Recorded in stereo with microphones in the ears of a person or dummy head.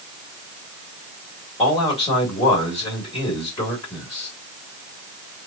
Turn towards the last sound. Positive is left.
turn(degrees=20)  # may be behind; listen again after turning